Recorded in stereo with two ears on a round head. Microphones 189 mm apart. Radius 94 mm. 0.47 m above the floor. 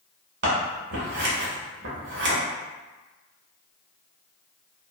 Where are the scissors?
50° right (ahead or behind), 1.0 m.